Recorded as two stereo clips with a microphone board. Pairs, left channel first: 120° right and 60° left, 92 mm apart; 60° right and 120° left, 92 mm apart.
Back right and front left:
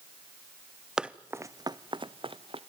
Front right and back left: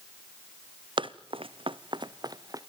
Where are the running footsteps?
145° left, 0.9 m; by 2.6 s 70° left, 1.3 m.